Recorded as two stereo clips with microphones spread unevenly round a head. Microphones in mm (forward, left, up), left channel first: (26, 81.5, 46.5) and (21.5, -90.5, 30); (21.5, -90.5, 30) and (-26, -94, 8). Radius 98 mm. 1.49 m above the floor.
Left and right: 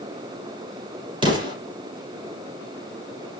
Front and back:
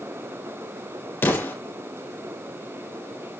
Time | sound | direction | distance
1.2 | an explosion | 30° right | 7.5 m